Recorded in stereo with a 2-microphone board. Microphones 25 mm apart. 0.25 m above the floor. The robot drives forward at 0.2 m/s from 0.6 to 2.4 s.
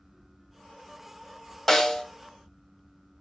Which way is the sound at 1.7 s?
10° left (ahead or behind).